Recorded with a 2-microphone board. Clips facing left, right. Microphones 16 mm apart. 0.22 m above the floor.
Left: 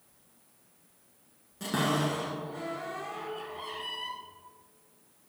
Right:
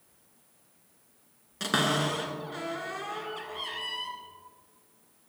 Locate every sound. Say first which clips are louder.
1.6 s a cupboard door: right 2 dB; 55° right (ahead or behind), 1.4 m